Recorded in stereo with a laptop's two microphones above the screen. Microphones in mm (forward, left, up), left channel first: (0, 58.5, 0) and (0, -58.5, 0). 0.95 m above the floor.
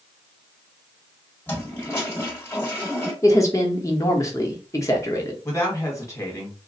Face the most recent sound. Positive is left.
turn(degrees=25)  # may be behind; listen again after turning